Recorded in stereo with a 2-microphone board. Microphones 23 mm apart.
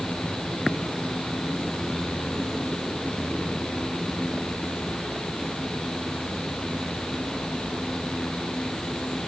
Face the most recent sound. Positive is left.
No sound to turn to.